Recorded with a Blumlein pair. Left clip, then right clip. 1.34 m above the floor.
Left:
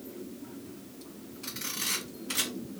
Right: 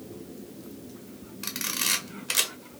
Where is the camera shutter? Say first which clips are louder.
Right 5 dB; 60° right, 0.9 m.